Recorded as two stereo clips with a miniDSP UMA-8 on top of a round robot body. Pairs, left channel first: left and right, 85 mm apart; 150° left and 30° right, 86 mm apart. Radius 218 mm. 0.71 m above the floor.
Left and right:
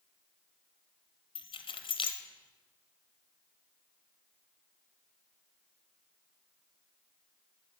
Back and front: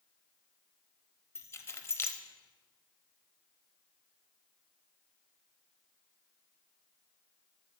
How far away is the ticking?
I don't hear ticking.